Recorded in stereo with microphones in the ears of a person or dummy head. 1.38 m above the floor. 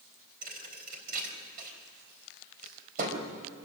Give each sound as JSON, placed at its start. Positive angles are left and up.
{"t": 0.4, "sound": "a thud", "side_deg": -45, "distance_m": 3.5}